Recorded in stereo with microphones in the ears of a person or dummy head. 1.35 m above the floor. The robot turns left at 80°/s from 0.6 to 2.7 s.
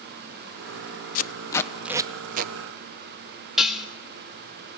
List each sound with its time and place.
1.1 s tape being pulled: 45° left (ahead or behind), 0.7 m; by 2.5 s 55° right (ahead or behind), 0.7 m
3.6 s dishes clattering: centre (ahead or behind), 1.1 m